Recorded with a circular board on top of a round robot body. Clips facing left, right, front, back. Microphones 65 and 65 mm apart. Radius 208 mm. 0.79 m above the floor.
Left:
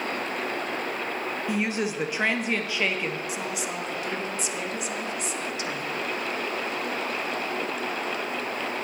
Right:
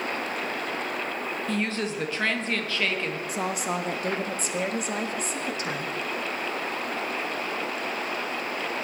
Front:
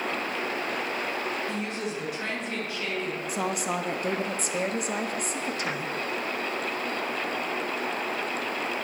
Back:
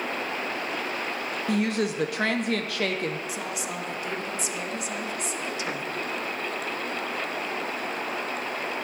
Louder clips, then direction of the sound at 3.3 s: Right 3 dB, front 4 dB; 45° right.